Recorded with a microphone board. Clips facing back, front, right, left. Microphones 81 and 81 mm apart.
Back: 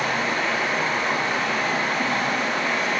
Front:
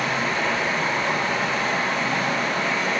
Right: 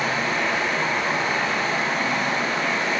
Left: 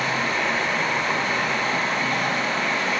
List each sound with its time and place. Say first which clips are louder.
0.0 s running water: even, even; 150° right, 3.5 m